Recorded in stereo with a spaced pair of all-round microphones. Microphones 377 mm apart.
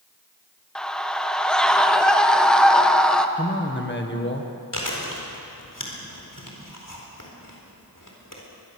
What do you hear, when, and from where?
0.8 s a scream: centre (ahead or behind), 1.6 m
3.4 s a man speaking: 30° left (ahead or behind), 1.6 m
4.7 s chewing: 55° left (ahead or behind), 4 m